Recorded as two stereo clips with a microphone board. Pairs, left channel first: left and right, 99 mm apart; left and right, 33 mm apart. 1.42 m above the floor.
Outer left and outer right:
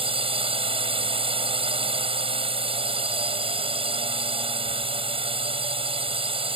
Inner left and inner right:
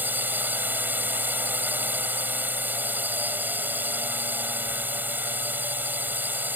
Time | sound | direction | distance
0.0 | a drone | 70° right (ahead or behind) | ?